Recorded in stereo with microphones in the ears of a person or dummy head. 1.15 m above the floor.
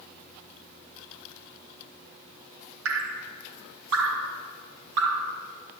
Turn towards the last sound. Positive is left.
turn(degrees=-55)  # may be behind; listen again after turning